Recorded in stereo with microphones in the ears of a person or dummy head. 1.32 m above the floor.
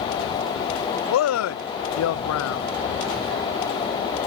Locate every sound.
1.1 s a man speaking: 75° left (ahead or behind)